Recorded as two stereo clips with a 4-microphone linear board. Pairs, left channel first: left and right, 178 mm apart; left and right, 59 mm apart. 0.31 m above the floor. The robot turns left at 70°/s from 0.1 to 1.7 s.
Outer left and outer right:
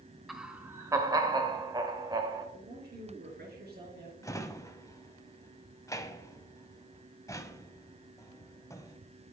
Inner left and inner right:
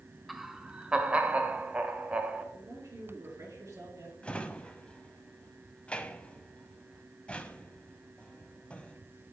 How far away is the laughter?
About 1.0 m.